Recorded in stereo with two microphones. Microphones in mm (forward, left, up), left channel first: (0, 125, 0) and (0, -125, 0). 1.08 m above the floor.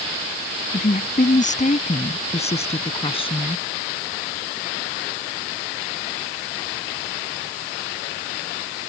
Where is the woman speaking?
35° left (ahead or behind); by 3.6 s 20° left (ahead or behind).